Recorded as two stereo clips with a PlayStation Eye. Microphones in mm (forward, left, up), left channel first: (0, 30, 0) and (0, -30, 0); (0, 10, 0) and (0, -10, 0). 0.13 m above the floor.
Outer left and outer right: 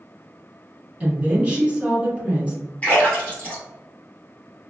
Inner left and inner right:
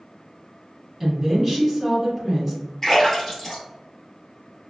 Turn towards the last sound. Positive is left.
turn(degrees=20)  # may be behind; listen again after turning